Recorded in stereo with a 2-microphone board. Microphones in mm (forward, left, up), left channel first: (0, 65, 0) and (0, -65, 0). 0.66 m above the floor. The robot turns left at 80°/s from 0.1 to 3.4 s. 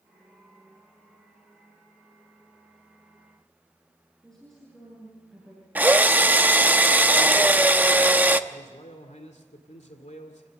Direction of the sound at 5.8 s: 15° right (ahead or behind).